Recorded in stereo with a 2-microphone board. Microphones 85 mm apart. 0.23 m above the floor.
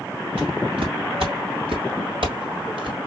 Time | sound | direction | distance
0.4 | footsteps | 75° right (ahead or behind) | 2.5 m